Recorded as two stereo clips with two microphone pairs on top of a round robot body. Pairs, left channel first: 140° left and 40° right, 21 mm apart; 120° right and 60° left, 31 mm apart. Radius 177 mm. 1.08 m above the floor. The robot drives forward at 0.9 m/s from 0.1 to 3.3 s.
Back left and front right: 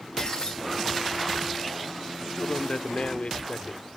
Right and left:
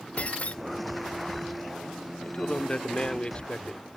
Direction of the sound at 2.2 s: 175° right.